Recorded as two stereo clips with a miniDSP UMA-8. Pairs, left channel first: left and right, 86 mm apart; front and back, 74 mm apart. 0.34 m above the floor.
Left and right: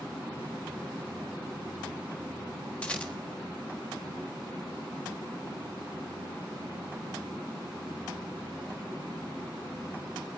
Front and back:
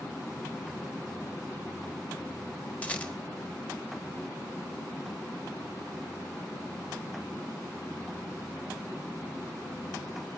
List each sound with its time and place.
2.8 s a rattle: 35° left, 1.2 m